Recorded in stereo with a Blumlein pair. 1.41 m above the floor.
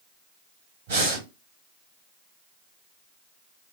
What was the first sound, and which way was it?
Breathing, 60° right.